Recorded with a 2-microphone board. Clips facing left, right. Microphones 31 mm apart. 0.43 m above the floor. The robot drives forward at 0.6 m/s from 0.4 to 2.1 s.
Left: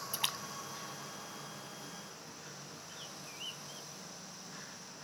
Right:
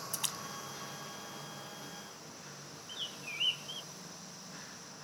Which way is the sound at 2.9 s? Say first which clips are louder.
Right 11 dB; 50° right (ahead or behind).